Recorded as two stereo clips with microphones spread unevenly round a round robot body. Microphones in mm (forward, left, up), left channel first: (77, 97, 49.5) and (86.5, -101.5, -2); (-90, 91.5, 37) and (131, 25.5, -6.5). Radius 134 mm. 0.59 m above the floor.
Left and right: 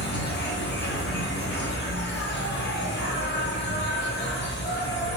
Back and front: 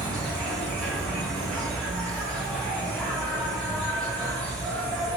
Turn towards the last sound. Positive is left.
turn(degrees=65)